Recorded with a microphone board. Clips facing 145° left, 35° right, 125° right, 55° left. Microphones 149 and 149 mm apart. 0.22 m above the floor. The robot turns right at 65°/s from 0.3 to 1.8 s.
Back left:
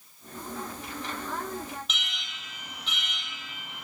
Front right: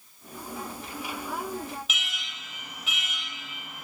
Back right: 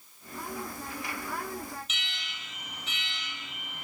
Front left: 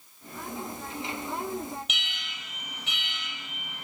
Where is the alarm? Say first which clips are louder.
Front right 1 dB, front left 2 dB; 50° left, 3.5 m.